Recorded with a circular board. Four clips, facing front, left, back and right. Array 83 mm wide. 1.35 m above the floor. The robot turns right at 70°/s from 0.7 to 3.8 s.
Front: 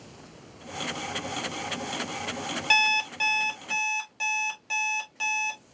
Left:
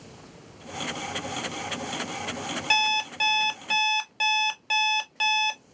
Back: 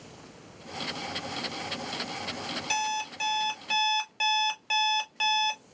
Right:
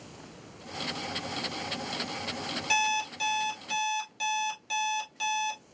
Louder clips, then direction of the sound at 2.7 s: Left 2 dB, front 5 dB; 35° left.